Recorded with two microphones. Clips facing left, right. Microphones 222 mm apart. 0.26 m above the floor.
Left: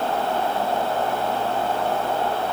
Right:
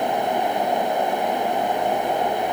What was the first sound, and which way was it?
Only background noise.